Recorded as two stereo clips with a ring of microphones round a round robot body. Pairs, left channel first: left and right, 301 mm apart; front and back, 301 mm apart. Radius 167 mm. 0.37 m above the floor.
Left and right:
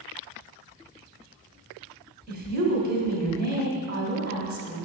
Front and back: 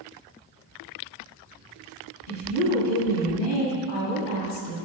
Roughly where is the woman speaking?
Ahead right.